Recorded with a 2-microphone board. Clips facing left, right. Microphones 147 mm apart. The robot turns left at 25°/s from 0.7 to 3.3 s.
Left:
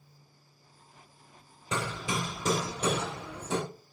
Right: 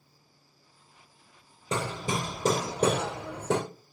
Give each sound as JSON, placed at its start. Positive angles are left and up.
{"t": 1.7, "sound": "hammering", "azimuth_deg": -35, "distance_m": 1.7}